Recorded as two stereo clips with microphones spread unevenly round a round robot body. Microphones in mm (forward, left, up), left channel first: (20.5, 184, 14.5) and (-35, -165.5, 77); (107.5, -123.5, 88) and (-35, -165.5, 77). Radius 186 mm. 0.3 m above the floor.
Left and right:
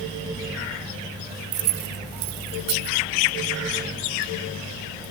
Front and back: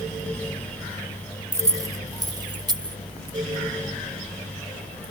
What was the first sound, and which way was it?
Keys jangling, 95° right.